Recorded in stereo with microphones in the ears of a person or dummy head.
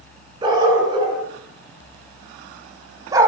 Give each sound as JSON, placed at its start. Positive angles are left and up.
{"t": 0.4, "sound": "a dog barking", "side_deg": -25, "distance_m": 9.0}